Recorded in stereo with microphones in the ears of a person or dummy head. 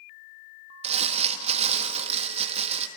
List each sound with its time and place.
0.8 s crumpling: 40° right (ahead or behind), 1.6 m